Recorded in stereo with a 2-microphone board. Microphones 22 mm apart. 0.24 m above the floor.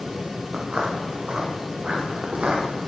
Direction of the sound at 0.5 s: 60° right (ahead or behind).